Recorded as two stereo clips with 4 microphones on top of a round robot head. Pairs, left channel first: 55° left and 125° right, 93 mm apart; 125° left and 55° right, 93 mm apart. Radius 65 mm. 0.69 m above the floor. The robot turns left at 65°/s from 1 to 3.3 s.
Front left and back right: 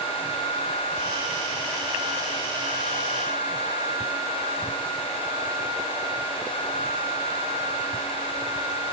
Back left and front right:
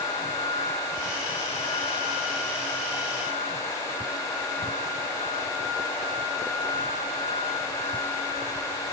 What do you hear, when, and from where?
Only background noise.